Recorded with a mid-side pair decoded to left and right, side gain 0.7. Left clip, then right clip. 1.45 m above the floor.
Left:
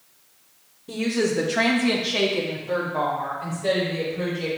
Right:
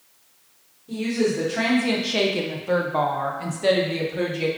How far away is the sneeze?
No sneeze in this recording.